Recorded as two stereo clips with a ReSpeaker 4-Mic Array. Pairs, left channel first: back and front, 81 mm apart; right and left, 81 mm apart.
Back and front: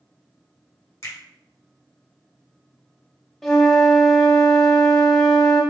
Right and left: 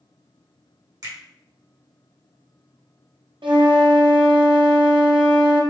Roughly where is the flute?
Left.